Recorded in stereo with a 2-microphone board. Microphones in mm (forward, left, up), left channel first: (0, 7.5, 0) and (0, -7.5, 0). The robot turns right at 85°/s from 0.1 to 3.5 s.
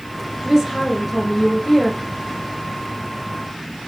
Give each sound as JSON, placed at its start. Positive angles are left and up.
{"t": 0.4, "sound": "a woman speaking", "azimuth_deg": -75, "distance_m": 1.8}